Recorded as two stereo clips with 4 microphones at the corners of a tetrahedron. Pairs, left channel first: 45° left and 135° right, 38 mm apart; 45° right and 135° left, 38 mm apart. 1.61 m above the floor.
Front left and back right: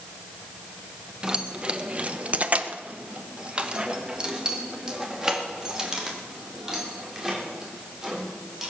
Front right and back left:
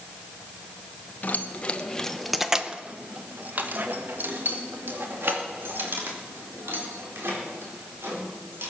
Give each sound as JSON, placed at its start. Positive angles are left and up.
{"t": 1.2, "sound": "keys jangling", "azimuth_deg": -75, "distance_m": 1.0}